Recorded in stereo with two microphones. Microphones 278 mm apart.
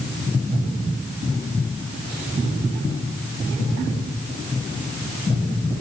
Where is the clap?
I don't hear a clap.